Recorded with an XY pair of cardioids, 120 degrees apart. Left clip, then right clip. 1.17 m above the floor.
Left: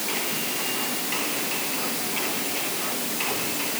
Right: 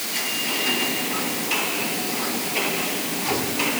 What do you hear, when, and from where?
Only background noise.